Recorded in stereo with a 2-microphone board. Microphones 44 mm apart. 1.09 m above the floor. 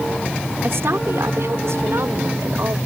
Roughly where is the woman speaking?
Right.